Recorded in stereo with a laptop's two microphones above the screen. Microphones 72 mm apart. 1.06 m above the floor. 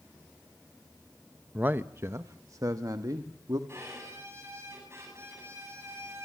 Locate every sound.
1.6 s a man speaking: 20° right (ahead or behind), 0.8 m; by 3.6 s 60° right (ahead or behind), 1.8 m
3.7 s a violin: 35° right (ahead or behind), 8.5 m